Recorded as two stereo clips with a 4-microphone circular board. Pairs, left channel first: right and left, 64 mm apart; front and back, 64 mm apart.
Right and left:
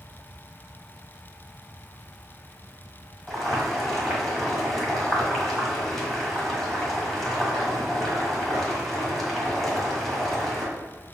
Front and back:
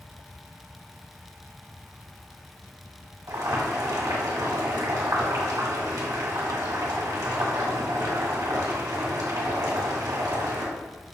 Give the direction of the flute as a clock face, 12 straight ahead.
No flute in this recording.